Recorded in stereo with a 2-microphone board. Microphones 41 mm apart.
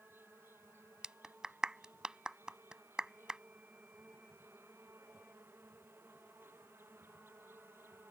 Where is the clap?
20° right (ahead or behind).